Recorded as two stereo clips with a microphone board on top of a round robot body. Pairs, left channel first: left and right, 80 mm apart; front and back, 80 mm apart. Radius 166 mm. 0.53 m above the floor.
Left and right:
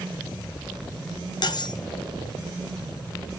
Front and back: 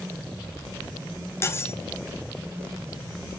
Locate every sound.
1.4 s cutlery clinking: 60° left, 1.2 m